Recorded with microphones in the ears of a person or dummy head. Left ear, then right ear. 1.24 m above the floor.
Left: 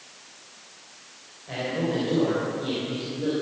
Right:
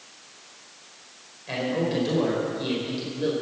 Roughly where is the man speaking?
Right.